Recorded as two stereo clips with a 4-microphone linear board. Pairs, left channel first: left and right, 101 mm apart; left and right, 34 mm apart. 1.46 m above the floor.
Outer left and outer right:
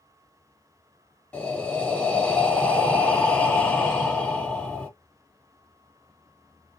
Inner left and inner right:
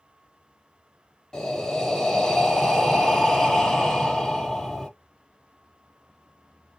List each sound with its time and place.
1.3 s breathing: 15° left (ahead or behind), 1.5 m